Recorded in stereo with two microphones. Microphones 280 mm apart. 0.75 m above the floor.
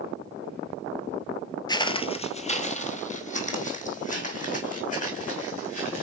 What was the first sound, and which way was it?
Footsteps, 15° left (ahead or behind).